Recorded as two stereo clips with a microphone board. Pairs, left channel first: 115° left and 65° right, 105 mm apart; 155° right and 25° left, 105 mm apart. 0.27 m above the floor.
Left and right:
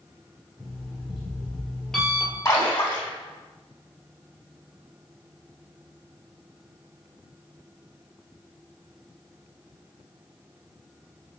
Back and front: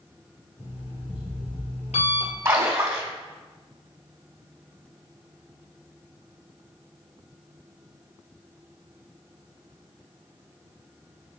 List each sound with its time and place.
0.6 s an alarm clock: 165° right, 2 m
2.5 s a splash: 80° left, 2 m